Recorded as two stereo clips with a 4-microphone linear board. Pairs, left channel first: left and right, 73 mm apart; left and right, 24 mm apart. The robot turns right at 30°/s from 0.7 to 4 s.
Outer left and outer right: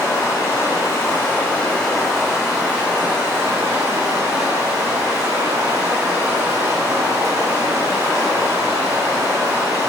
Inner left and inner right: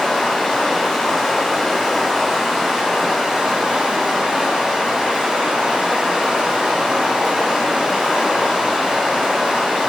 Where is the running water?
135° left, 4.5 m; by 9.9 s 125° right, 4.5 m.